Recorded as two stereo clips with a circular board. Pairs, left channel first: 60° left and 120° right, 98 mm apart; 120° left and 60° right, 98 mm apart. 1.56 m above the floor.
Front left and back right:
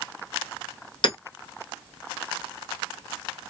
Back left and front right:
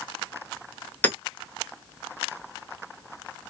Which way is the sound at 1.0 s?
50° left.